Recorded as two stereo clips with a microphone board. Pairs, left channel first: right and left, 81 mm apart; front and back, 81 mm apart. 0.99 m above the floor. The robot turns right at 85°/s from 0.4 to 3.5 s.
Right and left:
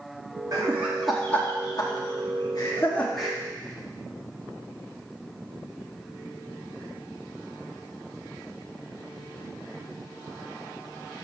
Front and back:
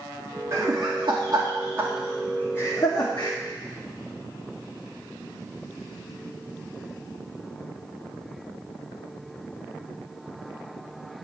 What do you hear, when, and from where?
0.5 s laughter: 130° left, 1.8 m; by 3.4 s 10° left, 1.8 m